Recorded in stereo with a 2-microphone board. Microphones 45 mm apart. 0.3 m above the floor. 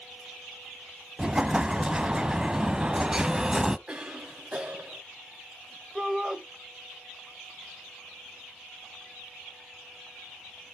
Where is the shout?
10° right (ahead or behind), 1.3 m.